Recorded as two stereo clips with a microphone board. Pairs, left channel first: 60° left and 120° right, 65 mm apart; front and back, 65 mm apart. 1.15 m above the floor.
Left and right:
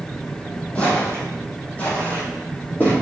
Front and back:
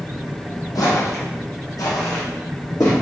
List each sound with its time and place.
0.8 s footsteps: 10° right, 3 m; by 2.9 s straight ahead, 4 m